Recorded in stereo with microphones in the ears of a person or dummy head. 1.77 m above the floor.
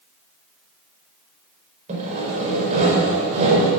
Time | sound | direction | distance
1.9 | sawing | 40° right (ahead or behind) | 4.5 m